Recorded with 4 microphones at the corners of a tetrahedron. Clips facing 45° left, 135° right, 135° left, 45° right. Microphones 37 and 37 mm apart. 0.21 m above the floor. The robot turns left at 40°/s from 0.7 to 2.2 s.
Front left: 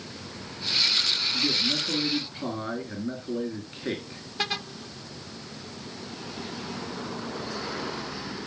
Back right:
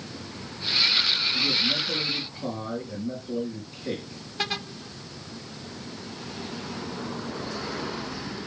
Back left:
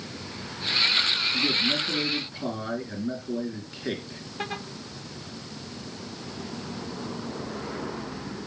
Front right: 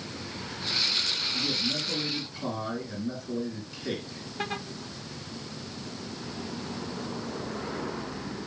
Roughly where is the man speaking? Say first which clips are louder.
Back right 1 dB, back left 5 dB; left.